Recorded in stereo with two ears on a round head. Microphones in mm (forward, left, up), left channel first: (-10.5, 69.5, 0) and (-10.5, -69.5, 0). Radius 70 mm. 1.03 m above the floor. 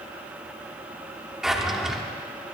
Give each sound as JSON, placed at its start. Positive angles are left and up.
{"t": 1.4, "sound": "a drawer", "side_deg": -5, "distance_m": 1.2}